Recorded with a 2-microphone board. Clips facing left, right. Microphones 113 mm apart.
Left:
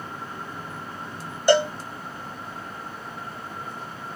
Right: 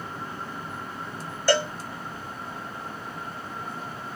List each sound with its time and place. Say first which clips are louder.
1.5 s a cowbell: left 5 dB; 20° left (ahead or behind), 0.6 m